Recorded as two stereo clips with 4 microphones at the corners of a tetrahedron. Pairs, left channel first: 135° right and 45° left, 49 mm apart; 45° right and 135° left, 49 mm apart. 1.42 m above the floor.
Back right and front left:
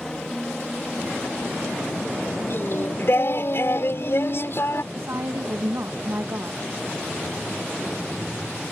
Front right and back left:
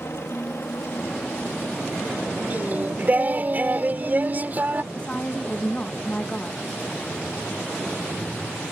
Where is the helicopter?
60° right; by 8.7 s 45° right.